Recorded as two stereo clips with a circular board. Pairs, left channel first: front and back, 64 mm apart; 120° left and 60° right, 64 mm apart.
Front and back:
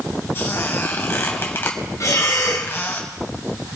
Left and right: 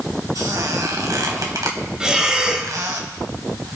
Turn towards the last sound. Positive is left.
turn(degrees=15)